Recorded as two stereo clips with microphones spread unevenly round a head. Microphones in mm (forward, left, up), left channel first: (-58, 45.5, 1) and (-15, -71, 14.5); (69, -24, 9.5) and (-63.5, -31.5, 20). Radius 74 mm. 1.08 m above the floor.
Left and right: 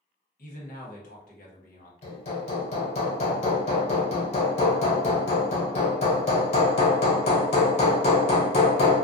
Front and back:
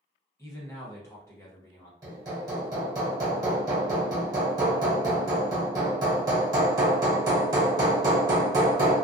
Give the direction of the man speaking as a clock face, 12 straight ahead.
10 o'clock.